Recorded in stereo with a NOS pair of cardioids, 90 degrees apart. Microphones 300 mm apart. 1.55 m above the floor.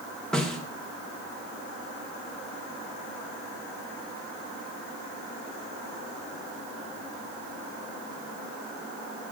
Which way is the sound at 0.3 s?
Straight ahead.